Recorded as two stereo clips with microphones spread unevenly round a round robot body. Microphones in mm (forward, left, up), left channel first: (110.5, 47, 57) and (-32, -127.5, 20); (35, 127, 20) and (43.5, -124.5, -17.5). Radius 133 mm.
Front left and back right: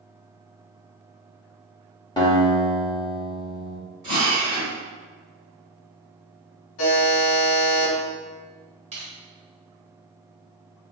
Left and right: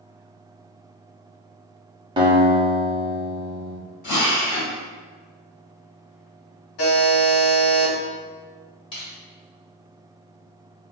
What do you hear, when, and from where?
2.2 s a guitar: 15° right, 0.7 m
4.0 s a drill: 150° left, 1.2 m
6.8 s a buzzer: 80° left, 0.9 m
8.9 s crushing: 165° left, 1.2 m